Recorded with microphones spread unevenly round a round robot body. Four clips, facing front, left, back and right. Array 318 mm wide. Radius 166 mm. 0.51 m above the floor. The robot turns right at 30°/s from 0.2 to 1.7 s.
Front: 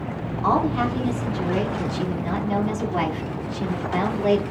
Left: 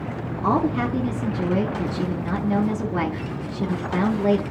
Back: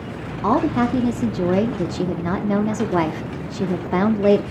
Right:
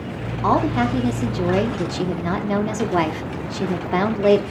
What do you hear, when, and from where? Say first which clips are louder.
0.4 s a woman speaking: right 3 dB, back 3 dB; 170° left, 0.8 m; by 4.4 s 150° right, 0.8 m